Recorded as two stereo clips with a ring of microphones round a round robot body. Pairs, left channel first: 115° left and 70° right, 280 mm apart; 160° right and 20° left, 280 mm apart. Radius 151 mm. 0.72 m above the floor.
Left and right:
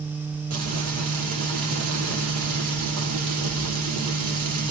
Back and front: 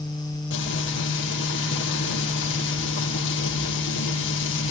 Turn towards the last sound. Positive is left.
turn(degrees=-105)